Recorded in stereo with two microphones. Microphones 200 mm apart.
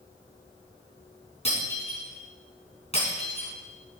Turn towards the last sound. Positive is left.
turn(degrees=35)  # may be behind; listen again after turning